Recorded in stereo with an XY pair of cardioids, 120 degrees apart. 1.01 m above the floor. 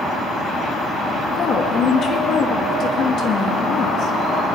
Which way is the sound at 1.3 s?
50° left.